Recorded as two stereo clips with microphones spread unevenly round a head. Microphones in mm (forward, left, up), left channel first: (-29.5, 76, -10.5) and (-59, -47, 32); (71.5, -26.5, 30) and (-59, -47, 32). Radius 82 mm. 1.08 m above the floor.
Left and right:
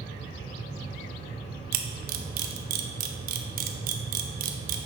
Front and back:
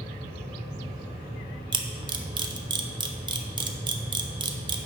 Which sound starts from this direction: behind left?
A fan, at 0.0 s.